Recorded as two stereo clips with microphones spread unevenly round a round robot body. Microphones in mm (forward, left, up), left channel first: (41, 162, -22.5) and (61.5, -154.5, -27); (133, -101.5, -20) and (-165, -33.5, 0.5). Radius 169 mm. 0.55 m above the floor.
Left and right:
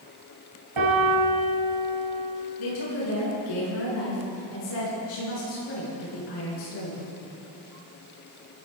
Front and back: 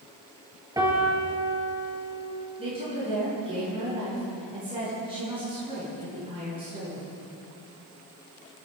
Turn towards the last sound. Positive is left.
turn(degrees=90)